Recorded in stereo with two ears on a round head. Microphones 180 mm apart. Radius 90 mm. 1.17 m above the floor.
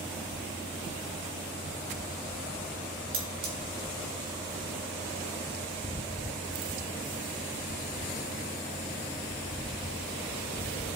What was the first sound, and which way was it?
Cutlery clinking, 70° right (ahead or behind).